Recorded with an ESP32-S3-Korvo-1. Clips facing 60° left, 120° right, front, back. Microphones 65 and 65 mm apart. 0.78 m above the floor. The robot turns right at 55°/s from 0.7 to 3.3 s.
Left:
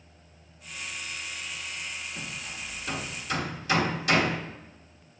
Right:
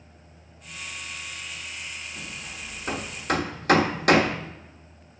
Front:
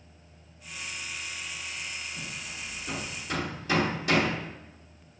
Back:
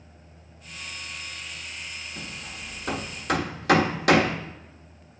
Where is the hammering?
140° left, 1.2 m; by 4.4 s 155° right, 1.2 m.